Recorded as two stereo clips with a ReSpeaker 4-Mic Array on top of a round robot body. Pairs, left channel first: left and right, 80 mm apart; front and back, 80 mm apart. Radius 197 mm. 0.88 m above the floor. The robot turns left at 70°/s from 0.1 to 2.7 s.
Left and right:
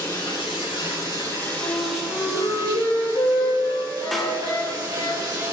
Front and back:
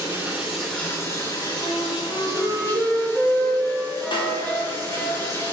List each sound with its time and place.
0.0 s running water: 125° left, 6 m; by 5.5 s 55° right, 6 m
1.6 s a flute: 160° left, 5.5 m; by 5.1 s 85° left, 5.5 m
4.1 s a snare drum: straight ahead, 3.5 m